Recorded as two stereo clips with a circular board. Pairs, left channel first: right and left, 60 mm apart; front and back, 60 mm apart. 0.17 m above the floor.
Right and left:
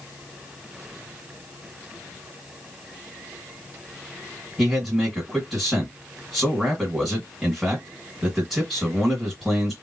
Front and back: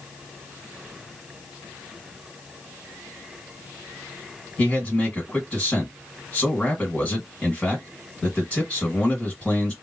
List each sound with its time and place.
4.6 s a man speaking: 10° left, 1.6 m